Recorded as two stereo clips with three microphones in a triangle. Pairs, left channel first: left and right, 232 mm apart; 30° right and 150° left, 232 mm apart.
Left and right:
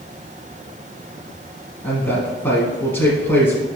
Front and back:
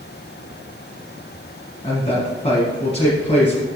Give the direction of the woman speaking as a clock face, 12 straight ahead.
12 o'clock.